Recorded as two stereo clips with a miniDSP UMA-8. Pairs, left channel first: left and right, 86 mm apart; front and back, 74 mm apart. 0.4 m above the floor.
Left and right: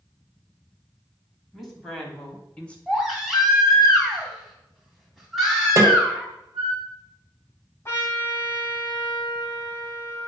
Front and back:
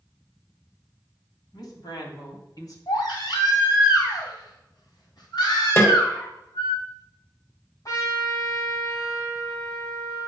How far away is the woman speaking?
About 3 m.